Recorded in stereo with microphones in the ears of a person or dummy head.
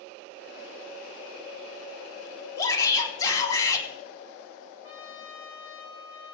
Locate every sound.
2.6 s a shout: 20° left (ahead or behind), 3.5 m
4.8 s a trumpet: 30° left (ahead or behind), 3 m